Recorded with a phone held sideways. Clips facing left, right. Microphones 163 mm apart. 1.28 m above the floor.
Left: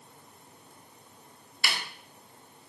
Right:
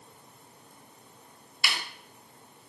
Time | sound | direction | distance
1.6 | a snare drum | 50° left (ahead or behind) | 3.5 m